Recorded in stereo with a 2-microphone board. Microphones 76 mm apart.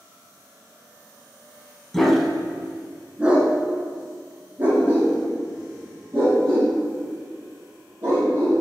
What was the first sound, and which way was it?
A dog barking, 5° left (ahead or behind).